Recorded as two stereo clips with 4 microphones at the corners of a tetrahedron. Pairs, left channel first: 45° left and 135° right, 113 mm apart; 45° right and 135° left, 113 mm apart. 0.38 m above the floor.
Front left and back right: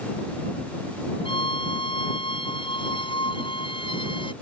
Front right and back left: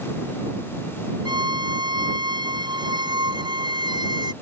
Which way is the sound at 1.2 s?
85° left.